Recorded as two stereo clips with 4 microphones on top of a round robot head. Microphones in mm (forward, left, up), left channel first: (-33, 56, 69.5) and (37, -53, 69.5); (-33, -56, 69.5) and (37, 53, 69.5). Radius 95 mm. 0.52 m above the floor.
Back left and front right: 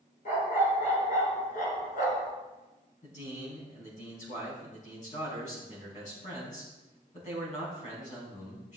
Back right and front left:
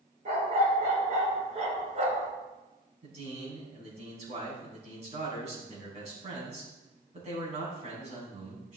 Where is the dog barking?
95° left, 3.5 m; by 2.3 s 100° left, 2 m.